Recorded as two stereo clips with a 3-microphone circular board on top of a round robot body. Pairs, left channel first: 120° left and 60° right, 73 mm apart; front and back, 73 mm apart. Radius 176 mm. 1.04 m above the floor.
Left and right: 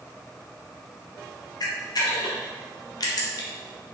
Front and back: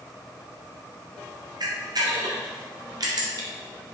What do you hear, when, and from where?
1.6 s a camera shutter: 150° left, 0.9 m